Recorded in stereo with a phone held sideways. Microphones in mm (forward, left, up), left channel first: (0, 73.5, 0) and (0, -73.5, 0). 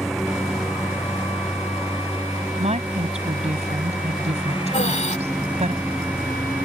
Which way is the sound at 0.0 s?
Centre (ahead or behind).